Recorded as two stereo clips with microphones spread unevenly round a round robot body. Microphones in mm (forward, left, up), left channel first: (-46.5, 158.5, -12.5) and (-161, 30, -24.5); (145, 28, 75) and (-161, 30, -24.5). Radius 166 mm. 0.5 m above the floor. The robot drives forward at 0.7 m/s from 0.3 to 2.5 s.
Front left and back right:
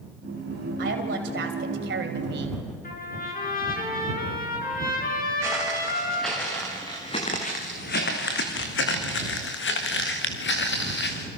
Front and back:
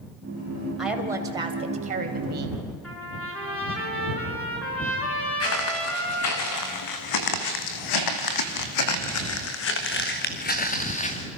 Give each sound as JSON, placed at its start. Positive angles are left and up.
{"t": 0.8, "sound": "a woman speaking", "azimuth_deg": -100, "distance_m": 2.0}
{"t": 2.8, "sound": "a trumpet", "azimuth_deg": 85, "distance_m": 6.0}
{"t": 5.4, "sound": "footsteps", "azimuth_deg": -50, "distance_m": 3.5}